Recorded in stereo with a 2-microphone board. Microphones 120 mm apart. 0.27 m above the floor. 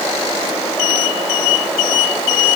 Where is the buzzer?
I don't hear a buzzer.